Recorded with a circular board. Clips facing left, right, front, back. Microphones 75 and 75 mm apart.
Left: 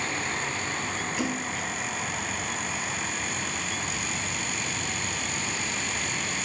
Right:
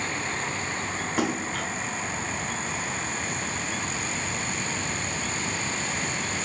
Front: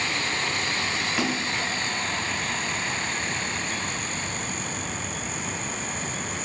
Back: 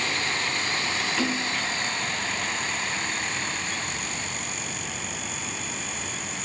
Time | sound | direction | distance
1.2 | a splash | 80° right | 0.8 m